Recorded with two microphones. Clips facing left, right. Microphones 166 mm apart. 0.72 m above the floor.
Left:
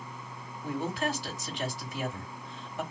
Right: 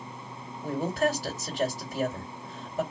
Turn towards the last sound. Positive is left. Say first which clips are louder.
# right 5 dB
turn(degrees=-45)  # may be behind; listen again after turning